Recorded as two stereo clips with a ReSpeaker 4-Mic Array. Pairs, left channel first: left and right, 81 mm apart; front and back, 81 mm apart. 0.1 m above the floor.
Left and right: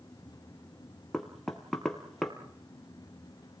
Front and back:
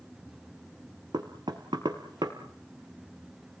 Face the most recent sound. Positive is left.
turn(degrees=175)